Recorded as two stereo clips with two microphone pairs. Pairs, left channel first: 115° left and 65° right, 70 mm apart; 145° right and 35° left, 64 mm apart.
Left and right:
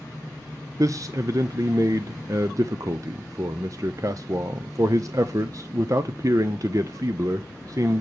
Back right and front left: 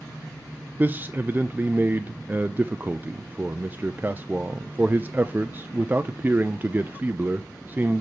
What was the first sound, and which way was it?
A man speaking, 30° right.